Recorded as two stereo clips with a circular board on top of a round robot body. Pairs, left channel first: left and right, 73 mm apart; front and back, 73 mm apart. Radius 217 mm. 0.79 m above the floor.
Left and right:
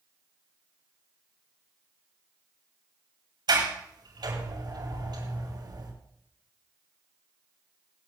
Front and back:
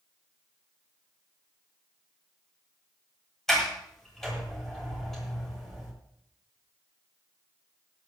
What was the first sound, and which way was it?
A sliding door, 85° right.